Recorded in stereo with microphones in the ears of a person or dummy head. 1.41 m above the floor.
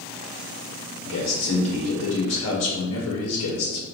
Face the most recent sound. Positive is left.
turn(degrees=75)  # may be behind; listen again after turning